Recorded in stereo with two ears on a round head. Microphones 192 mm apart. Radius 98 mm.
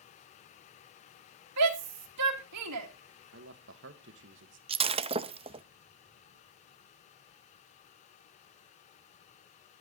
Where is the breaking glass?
25° right (ahead or behind), 0.6 m.